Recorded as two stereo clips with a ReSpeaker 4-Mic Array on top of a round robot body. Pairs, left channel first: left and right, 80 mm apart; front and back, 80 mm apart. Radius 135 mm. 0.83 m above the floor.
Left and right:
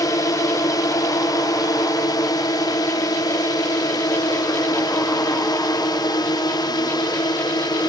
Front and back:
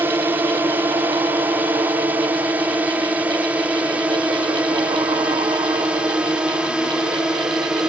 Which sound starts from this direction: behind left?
A drone, at 0.0 s.